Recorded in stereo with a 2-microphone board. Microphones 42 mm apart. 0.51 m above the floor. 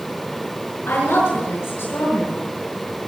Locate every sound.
0.9 s a woman speaking: 80° left, 5.5 m